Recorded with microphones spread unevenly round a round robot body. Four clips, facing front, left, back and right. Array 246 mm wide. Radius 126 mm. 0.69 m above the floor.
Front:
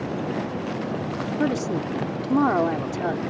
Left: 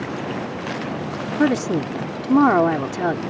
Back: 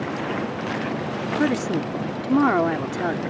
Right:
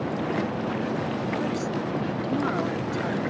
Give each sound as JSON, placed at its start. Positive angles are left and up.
{"t": 1.4, "sound": "a woman speaking", "azimuth_deg": 105}